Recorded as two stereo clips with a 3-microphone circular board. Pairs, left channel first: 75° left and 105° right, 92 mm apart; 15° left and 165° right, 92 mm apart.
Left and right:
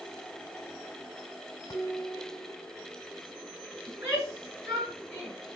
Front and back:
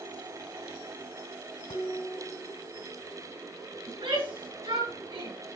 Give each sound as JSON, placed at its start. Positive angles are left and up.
{"t": 1.7, "sound": "dishes clattering", "azimuth_deg": 20, "distance_m": 1.9}
{"t": 3.9, "sound": "a shout", "azimuth_deg": -160, "distance_m": 5.5}